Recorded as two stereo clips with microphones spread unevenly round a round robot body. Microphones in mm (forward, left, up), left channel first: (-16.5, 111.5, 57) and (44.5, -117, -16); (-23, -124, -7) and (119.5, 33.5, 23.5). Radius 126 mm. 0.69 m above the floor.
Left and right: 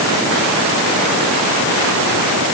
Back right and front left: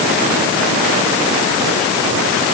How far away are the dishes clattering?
I don't hear dishes clattering.